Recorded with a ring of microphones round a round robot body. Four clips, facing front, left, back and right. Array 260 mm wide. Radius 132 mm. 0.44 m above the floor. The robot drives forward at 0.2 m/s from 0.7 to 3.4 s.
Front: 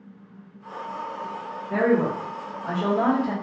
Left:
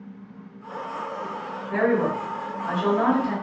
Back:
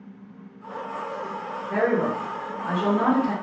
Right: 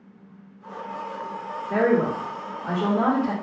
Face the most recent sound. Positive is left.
turn(degrees=-110)